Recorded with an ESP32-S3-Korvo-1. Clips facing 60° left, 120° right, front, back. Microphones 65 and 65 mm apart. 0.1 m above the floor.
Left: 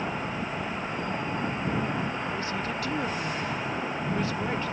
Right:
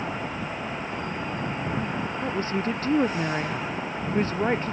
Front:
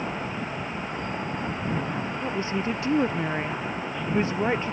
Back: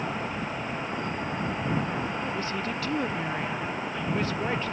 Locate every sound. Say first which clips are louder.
2.2 s a woman speaking: right 4 dB, front 3 dB; 65° right